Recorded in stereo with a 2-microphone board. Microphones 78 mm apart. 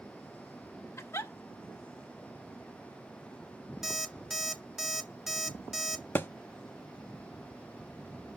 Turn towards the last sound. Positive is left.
turn(degrees=30)  # may be behind; listen again after turning